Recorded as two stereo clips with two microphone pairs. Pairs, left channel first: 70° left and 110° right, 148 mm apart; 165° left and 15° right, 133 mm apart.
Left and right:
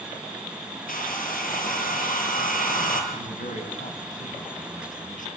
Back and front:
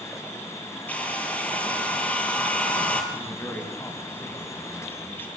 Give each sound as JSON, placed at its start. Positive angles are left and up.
{"t": 0.9, "sound": "a hair dryer", "azimuth_deg": 85, "distance_m": 5.5}
{"t": 3.1, "sound": "a man speaking", "azimuth_deg": 95, "distance_m": 5.5}